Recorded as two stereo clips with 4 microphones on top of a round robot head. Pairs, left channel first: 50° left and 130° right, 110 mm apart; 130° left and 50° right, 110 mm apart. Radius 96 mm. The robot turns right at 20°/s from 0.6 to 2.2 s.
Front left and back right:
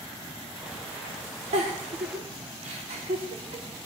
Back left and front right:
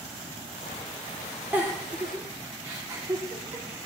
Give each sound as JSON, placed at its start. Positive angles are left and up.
{"t": 1.5, "sound": "a giggle", "azimuth_deg": -125, "distance_m": 2.0}